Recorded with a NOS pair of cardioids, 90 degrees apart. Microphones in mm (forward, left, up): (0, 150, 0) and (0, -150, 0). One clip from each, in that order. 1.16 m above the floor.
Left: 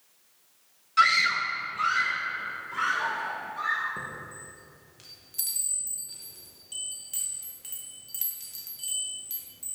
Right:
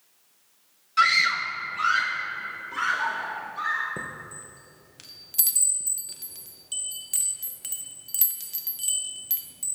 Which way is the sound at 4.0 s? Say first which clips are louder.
Right 2 dB; 45° right.